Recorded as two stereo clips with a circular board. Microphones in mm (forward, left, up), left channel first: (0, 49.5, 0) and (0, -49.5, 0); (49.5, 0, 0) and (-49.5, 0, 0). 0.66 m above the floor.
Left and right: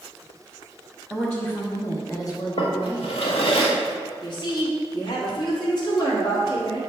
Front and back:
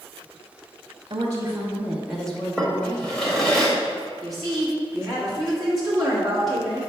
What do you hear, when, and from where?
1.1 s a woman speaking: 175° left, 1.0 m; by 3.6 s 50° left, 1.6 m
2.6 s a drawer: 85° left, 1.3 m
4.2 s a woman speaking: 90° left, 1.6 m